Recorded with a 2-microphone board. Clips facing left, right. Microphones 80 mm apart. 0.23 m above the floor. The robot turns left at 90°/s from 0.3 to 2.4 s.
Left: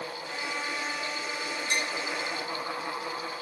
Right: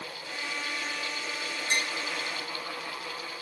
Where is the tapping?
35° right (ahead or behind), 7 m; by 1.9 s 55° right (ahead or behind), 7 m.